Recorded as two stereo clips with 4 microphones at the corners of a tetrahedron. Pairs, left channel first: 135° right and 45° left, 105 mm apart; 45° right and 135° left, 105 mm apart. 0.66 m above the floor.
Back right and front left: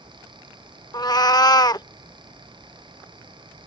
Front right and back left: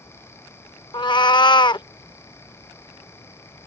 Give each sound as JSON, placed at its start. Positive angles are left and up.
{"t": 0.9, "sound": "a cat meowing", "azimuth_deg": -85}